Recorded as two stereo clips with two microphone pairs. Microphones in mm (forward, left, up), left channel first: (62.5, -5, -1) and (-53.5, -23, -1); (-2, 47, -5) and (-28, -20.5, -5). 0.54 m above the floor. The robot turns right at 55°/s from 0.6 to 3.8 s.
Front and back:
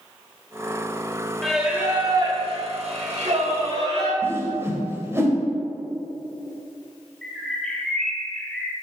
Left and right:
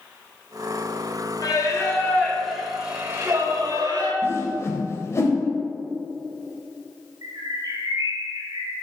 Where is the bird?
80° right, 1.7 m.